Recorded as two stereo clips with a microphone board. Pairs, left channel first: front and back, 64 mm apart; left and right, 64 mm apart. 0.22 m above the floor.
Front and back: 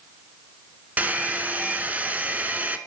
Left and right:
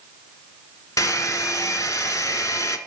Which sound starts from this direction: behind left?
A hair dryer, at 1.0 s.